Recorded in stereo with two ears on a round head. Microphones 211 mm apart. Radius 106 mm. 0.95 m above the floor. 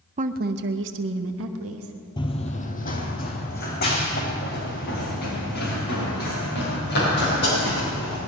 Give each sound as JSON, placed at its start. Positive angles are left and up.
{"t": 0.2, "sound": "a woman speaking", "side_deg": -30, "distance_m": 0.6}
{"t": 2.2, "sound": "running footsteps", "side_deg": 20, "distance_m": 1.0}